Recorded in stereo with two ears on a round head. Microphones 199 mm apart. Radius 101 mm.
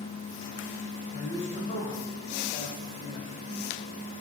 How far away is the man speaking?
About 3 m.